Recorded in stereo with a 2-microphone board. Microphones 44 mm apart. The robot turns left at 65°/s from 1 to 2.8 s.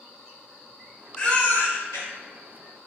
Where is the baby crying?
160° left, 0.9 m; by 2.1 s 100° left, 0.9 m.